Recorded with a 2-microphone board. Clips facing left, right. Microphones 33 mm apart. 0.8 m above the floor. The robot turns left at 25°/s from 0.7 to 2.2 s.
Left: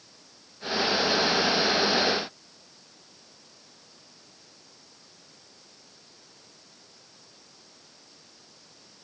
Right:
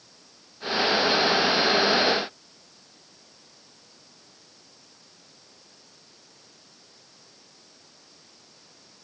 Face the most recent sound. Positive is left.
No sound to turn to.